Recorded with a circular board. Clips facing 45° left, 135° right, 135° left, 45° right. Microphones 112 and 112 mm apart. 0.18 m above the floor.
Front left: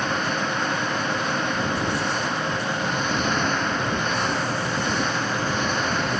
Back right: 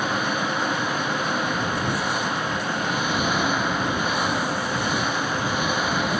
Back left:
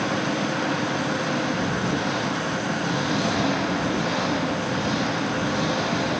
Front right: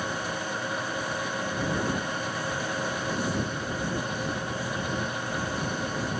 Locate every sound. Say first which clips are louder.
0.0 s an engine running: even, back left 8 dB; 145° left